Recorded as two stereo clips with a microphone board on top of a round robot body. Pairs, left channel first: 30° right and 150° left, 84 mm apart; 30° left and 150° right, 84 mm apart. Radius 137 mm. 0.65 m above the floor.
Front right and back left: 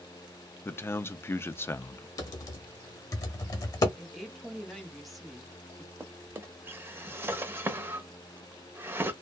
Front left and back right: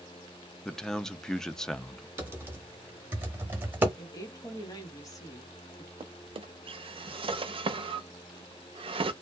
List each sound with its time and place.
0.7 s a man speaking: 45° right, 0.6 m
2.2 s typing on a keyboard: 80° right, 0.7 m
4.0 s a woman speaking: 60° left, 1.2 m
6.0 s a drawer: 145° right, 0.6 m